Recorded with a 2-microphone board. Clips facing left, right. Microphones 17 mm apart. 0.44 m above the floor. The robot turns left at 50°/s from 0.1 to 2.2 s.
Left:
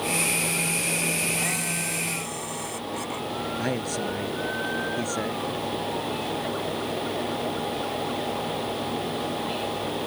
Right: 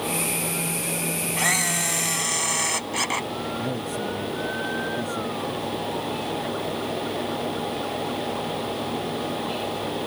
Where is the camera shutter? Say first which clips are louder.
Right 5 dB; 50° right; by 3.3 s 95° right.